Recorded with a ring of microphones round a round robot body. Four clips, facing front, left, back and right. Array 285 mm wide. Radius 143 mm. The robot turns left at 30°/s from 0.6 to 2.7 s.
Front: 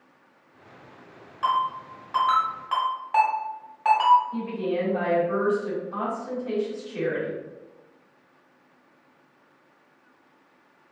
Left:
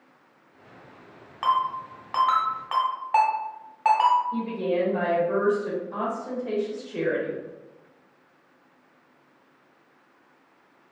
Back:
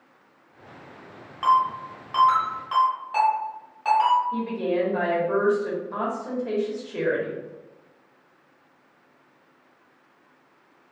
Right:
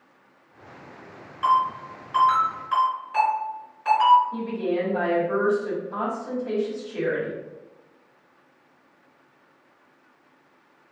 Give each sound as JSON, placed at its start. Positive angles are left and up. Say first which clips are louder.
{"t": 1.4, "sound": "a ringtone", "louder": "right 3 dB, back 4 dB", "azimuth_deg": 115, "distance_m": 1.5}
{"t": 4.3, "sound": "a woman speaking", "louder": "even, back 2 dB", "azimuth_deg": 170, "distance_m": 1.4}